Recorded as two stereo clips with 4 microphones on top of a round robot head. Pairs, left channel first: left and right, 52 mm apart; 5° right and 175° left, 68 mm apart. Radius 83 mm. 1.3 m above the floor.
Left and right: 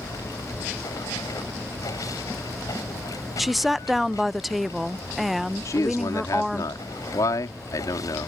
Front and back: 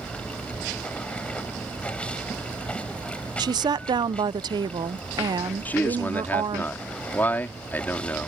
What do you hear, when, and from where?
0.0 s running water: 70° left
3.4 s a woman speaking: straight behind
5.7 s a man speaking: 65° left